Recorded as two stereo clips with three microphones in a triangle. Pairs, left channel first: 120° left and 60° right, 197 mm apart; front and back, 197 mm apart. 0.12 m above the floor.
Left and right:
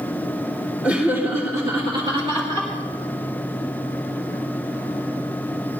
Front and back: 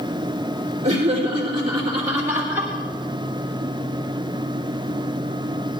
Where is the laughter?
140° right, 2.5 m; by 2.7 s 105° right, 2.5 m.